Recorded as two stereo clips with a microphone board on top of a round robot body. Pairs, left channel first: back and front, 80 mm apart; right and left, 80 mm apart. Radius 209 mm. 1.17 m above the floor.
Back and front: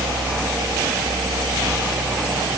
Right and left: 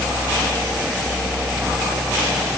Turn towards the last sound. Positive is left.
No sound to turn to.